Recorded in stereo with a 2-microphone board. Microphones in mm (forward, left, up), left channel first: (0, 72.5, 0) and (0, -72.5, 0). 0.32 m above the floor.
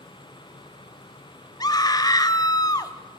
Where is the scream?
25° left (ahead or behind), 1.1 m.